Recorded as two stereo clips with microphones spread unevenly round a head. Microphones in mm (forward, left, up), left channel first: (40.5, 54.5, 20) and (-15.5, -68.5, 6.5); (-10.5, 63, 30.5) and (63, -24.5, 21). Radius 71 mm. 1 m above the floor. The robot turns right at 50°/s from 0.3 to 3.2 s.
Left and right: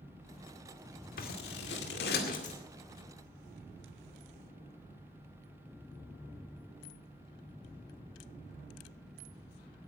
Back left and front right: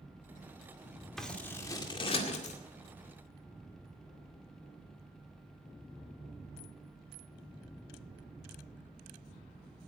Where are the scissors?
45° left, 2 m; by 2.6 s 110° left, 2 m.